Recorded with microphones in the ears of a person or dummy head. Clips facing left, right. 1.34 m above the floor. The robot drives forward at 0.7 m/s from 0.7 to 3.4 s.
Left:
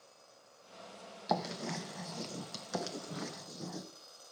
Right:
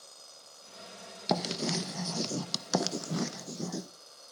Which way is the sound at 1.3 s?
40° right (ahead or behind).